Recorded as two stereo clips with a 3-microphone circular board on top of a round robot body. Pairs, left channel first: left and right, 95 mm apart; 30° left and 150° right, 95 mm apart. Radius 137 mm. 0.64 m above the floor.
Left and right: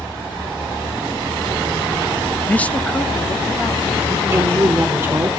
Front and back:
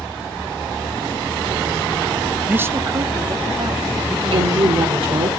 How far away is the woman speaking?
About 2.5 m.